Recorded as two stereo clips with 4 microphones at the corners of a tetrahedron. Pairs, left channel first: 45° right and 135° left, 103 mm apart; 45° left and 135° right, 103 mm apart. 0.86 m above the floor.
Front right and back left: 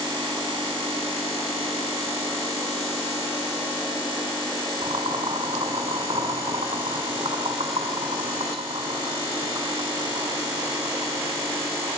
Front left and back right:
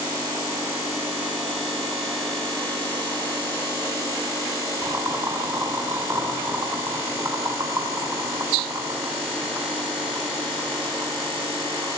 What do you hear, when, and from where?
4.8 s boiling: 165° left, 8 m